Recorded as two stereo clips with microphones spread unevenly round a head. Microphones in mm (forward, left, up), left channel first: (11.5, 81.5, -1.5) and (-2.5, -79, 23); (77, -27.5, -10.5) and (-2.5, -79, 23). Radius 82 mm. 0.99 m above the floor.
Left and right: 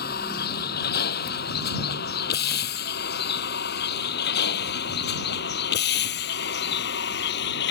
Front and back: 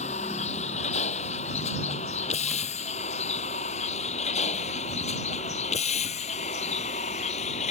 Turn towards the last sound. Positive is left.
turn(degrees=65)